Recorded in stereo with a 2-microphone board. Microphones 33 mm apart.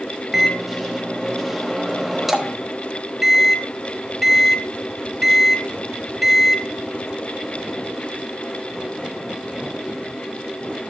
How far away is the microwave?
About 1.2 m.